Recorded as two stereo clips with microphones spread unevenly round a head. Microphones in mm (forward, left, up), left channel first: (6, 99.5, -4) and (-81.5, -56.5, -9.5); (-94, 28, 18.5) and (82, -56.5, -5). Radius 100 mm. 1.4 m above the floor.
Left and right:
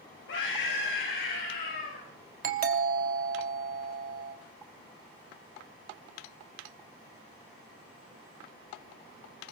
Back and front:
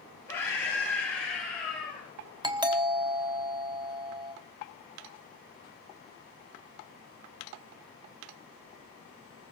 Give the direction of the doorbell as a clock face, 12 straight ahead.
3 o'clock.